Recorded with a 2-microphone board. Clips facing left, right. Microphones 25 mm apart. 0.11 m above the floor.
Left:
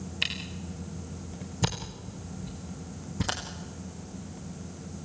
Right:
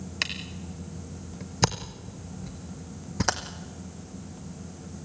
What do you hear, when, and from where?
0.2 s a camera shutter: 75° right (ahead or behind), 2.5 m